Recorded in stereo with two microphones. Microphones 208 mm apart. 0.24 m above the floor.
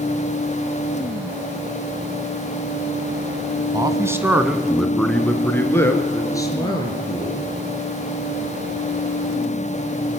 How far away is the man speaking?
About 1.9 m.